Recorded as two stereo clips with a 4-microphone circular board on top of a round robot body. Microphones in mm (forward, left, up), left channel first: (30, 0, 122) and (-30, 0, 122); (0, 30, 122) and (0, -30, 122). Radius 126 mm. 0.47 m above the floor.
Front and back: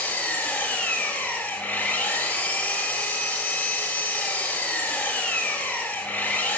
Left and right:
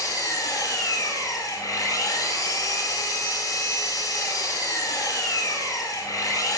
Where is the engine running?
65° left, 4.5 m.